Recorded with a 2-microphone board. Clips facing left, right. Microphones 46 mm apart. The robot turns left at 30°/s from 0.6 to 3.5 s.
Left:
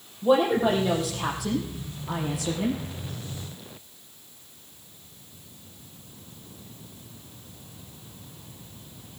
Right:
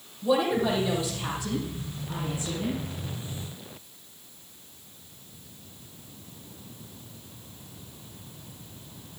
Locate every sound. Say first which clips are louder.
0.2 s a woman speaking: left 3 dB; 140° left, 5 m; by 2.8 s 75° left, 5 m